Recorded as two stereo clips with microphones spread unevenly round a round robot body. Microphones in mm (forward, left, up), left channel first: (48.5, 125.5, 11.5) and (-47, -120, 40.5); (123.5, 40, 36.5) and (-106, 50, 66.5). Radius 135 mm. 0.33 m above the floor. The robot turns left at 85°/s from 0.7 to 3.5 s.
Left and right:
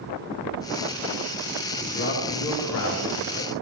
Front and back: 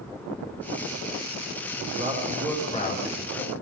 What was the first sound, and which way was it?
A man speaking, 145° left.